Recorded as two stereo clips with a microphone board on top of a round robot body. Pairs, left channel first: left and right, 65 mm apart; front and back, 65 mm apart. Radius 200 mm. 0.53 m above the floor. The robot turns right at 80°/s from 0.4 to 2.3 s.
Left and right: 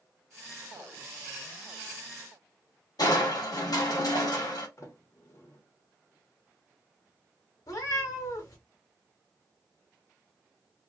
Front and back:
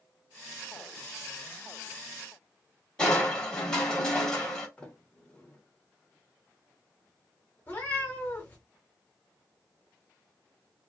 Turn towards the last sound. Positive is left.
turn(degrees=65)